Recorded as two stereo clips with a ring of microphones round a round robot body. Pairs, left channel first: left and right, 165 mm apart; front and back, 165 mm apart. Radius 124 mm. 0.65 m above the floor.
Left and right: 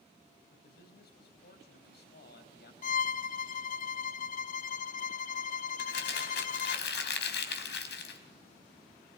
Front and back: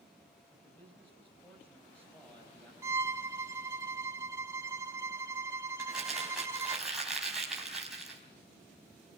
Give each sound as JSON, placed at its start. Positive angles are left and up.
{"t": 0.5, "sound": "a man speaking", "azimuth_deg": 85, "distance_m": 4.0}
{"t": 2.8, "sound": "a violin", "azimuth_deg": 110, "distance_m": 0.7}
{"t": 5.8, "sound": "crumpling", "azimuth_deg": 90, "distance_m": 4.5}